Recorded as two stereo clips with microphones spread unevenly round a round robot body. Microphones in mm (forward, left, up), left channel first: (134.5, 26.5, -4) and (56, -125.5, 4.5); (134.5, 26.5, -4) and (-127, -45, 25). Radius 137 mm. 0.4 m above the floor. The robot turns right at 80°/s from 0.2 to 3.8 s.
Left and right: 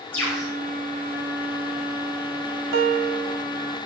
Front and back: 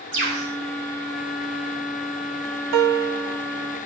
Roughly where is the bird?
Behind left.